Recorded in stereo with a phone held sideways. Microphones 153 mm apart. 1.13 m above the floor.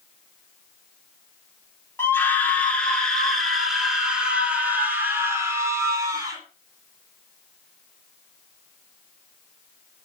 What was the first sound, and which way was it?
A scream, 15° left (ahead or behind).